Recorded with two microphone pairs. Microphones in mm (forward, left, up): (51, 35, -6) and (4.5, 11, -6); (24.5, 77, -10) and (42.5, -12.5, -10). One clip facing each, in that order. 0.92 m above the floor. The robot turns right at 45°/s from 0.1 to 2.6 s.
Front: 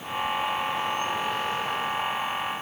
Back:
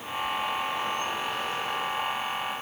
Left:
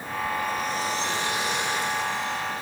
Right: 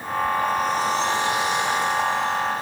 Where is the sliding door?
I don't hear a sliding door.